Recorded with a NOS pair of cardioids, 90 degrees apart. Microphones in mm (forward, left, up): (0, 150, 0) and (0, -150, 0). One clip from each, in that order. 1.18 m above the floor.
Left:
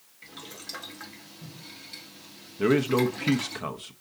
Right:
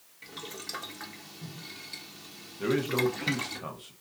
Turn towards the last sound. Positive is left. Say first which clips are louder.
# left 4 dB
turn(degrees=40)